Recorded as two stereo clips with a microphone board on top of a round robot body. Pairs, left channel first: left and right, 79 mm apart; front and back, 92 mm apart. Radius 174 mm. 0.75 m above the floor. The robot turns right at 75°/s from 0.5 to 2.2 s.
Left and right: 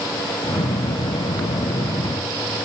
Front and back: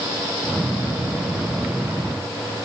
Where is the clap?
No clap in this recording.